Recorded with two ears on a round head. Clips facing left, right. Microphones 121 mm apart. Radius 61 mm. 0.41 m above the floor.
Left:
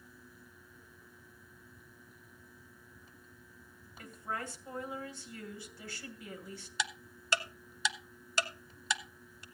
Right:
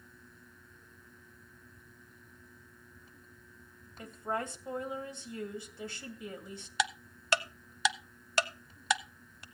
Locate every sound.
4.0 s a woman speaking: 20° right (ahead or behind), 2.5 m
6.8 s ticking: 50° right (ahead or behind), 0.7 m